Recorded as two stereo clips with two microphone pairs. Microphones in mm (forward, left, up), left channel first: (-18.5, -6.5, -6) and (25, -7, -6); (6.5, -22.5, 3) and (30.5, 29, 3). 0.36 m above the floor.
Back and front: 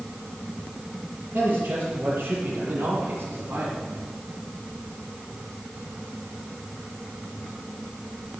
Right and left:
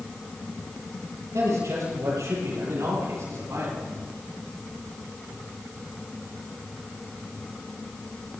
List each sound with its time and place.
1.3 s a man speaking: 40° left, 6.5 m; by 3.8 s 30° left, 6 m